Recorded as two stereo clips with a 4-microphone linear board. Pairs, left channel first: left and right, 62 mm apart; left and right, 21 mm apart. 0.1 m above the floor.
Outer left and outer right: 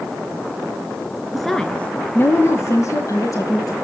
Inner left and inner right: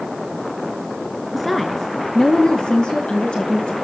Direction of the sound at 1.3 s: Centre (ahead or behind).